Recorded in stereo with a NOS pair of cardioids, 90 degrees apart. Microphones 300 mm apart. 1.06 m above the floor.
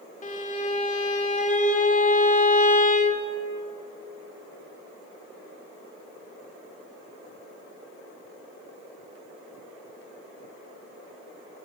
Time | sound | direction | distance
0.2 | a violin | 30° left | 0.6 m